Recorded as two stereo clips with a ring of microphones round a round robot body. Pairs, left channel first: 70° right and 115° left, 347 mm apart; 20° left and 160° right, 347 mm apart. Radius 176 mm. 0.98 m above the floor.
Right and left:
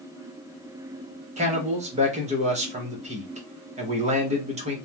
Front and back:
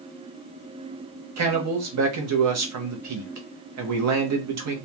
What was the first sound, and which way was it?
A man speaking, straight behind.